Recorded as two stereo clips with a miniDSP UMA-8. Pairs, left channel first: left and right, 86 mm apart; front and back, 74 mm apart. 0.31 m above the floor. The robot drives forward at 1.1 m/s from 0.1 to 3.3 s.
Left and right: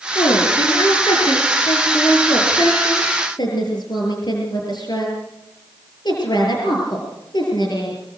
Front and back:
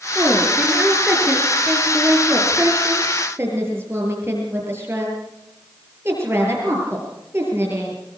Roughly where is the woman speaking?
Left.